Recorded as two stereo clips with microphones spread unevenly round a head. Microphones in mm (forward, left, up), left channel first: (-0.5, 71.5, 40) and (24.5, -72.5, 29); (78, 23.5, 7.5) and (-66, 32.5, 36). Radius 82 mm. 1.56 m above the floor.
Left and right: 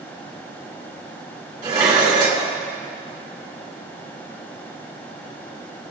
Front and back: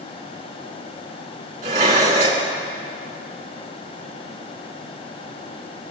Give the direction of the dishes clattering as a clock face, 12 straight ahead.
5 o'clock.